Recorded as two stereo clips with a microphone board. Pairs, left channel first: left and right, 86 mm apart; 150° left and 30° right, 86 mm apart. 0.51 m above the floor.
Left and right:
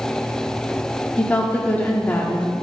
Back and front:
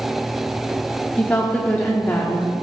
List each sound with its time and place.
1.2 s a woman speaking: 115° left, 0.7 m